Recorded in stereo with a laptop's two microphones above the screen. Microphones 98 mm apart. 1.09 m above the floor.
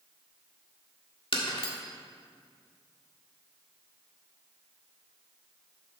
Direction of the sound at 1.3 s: 65° left (ahead or behind).